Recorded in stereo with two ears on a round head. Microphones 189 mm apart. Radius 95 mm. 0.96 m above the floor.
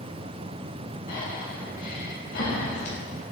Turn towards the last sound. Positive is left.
turn(degrees=45)  # may be behind; listen again after turning